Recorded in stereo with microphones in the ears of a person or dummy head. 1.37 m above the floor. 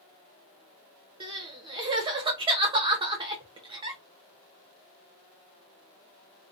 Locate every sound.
1.2 s crying: 25° right (ahead or behind), 0.7 m